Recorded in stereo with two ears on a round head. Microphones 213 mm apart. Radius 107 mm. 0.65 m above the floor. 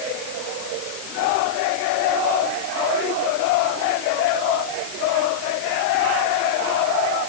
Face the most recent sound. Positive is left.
No sound to turn to.